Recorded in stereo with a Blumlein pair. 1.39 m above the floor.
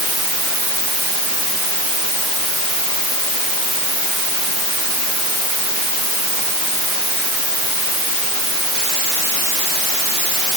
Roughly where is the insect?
No insect in this recording.